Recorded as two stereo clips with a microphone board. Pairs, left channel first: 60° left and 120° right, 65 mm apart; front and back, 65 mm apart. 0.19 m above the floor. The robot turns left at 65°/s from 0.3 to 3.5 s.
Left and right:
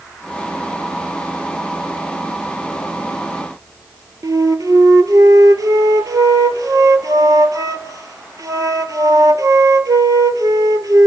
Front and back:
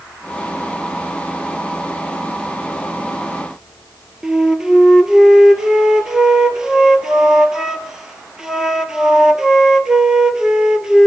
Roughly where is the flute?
Right.